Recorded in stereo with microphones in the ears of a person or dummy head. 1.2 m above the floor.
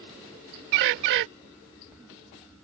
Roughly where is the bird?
Right.